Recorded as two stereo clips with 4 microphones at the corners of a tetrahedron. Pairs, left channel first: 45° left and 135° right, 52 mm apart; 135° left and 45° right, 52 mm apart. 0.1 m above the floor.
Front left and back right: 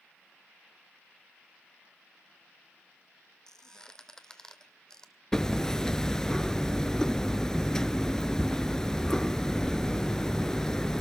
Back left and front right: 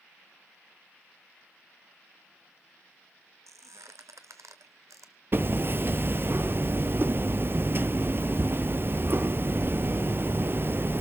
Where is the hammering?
30° right, 0.5 m.